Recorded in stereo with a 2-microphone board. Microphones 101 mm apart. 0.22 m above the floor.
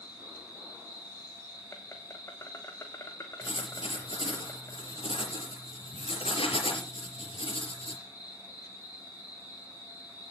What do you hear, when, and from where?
0.0 s an insect: 30° left (ahead or behind), 3 m
3.4 s writing: 70° left (ahead or behind), 4.5 m